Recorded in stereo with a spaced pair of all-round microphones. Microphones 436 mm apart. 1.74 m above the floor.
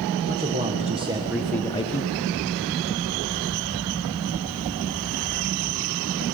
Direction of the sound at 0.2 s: 25° right (ahead or behind).